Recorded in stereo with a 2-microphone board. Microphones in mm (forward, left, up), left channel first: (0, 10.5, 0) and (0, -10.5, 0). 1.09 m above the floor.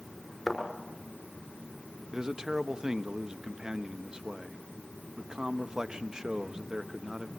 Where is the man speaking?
35° right (ahead or behind), 1.1 m.